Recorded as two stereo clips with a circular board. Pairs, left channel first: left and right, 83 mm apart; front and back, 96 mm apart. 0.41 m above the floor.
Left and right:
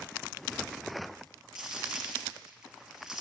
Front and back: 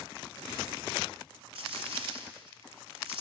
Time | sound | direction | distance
1.6 | a dropped coin | 175° right | 0.9 m